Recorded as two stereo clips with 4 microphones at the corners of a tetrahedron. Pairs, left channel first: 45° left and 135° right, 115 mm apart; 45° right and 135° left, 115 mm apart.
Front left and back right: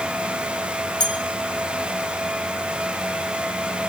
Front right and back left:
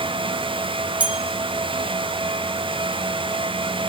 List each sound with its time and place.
1.0 s a bell: 65° left, 1.0 m